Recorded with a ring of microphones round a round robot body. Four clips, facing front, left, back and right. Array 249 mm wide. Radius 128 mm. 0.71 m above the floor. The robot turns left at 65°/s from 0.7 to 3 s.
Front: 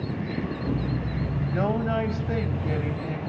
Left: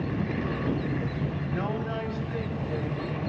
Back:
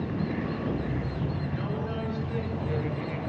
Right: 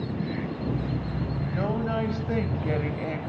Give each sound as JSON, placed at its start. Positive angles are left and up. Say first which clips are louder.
{"t": 1.5, "sound": "a woman speaking", "louder": "right 5 dB, front 7 dB", "azimuth_deg": 5, "distance_m": 3.5}